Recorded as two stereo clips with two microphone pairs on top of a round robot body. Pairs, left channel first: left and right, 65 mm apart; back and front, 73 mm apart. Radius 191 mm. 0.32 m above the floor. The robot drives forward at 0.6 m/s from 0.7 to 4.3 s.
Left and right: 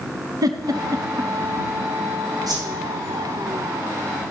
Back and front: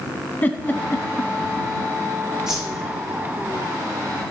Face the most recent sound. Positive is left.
turn(degrees=-95)